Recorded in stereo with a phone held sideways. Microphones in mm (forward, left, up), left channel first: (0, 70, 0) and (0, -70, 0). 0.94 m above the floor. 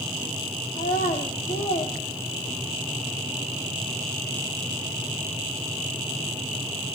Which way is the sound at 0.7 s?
75° left (ahead or behind).